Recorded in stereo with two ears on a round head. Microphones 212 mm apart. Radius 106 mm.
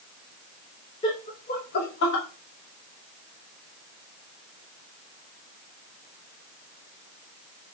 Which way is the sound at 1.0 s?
20° left (ahead or behind).